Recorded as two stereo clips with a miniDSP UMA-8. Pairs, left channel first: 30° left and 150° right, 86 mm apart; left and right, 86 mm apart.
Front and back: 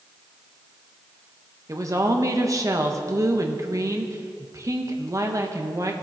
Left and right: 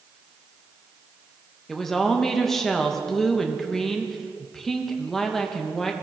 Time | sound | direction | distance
1.7 | a woman speaking | 175° left | 1.0 m